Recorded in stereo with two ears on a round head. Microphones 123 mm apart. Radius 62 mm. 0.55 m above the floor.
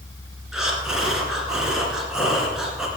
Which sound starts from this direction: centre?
Breathing, at 0.5 s.